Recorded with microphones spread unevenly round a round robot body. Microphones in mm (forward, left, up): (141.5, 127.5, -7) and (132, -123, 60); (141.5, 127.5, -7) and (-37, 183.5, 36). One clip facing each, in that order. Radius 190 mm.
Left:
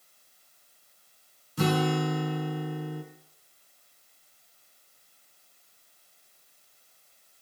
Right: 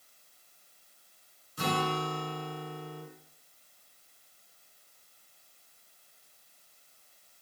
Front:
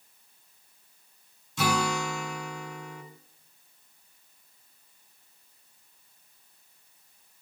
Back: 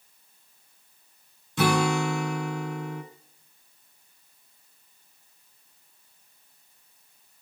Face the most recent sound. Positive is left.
turn(degrees=125)